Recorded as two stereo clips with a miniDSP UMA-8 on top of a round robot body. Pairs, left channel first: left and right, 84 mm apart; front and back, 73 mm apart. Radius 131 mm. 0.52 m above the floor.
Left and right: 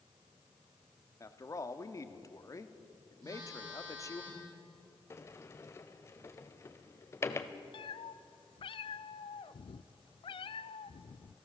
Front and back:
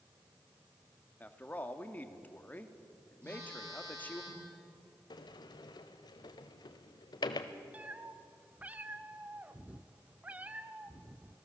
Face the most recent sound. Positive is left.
turn(degrees=110)